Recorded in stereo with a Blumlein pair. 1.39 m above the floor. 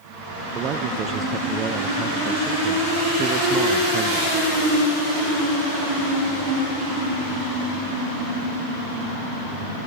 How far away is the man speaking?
About 0.8 m.